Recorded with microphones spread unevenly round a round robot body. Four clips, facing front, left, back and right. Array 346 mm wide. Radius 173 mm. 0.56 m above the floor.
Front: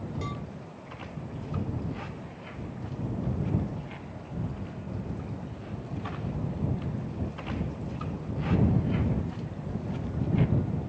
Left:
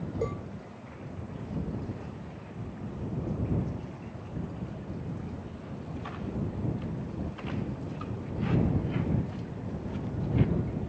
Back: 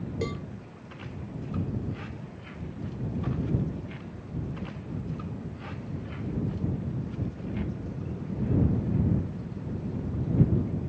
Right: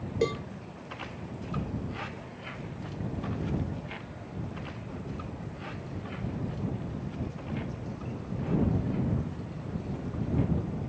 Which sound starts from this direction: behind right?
A cowbell, at 0.2 s.